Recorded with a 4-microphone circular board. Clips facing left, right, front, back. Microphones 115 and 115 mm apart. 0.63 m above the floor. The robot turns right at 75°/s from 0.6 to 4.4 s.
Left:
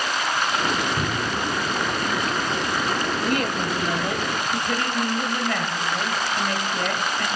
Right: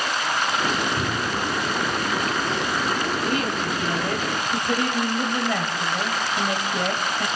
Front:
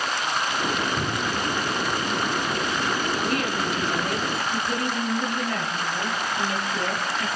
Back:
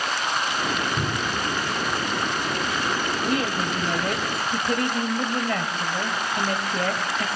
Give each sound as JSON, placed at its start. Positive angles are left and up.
{"t": 1.0, "sound": "a cupboard door", "azimuth_deg": 155, "distance_m": 2.5}
{"t": 3.2, "sound": "a woman speaking", "azimuth_deg": 105, "distance_m": 2.5}